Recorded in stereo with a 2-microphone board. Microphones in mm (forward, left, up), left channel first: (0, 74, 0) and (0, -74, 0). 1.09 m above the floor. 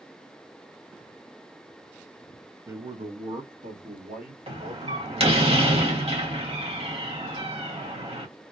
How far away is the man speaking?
About 0.6 m.